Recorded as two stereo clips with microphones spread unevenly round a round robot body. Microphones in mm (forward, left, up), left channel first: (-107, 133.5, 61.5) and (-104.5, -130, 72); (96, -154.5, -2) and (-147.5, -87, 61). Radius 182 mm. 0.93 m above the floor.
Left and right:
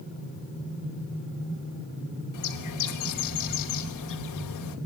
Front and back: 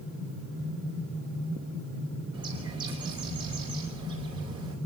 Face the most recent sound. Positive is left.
turn(degrees=85)